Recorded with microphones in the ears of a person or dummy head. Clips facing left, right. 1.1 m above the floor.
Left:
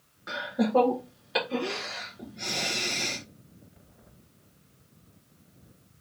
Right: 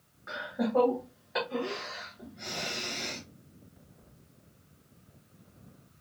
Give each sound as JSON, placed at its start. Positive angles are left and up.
{"t": 0.3, "sound": "laughter", "side_deg": 40, "distance_m": 0.9}